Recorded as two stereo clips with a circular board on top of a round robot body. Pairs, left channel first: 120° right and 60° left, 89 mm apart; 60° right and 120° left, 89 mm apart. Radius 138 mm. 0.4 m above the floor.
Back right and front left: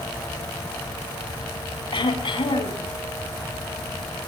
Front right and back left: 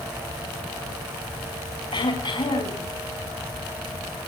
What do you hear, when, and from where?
1.9 s throat clearing: 90° right, 6 m